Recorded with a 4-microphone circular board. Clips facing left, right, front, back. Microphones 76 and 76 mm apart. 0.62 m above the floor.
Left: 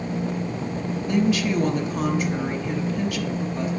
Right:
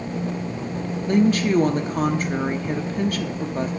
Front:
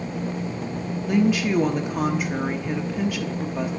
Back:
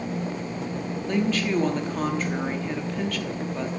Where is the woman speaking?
75° right, 0.7 m.